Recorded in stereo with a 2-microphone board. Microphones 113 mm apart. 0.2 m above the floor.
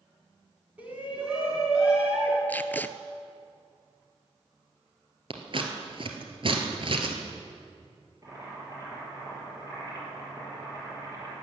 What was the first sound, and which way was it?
A shout, 15° right (ahead or behind).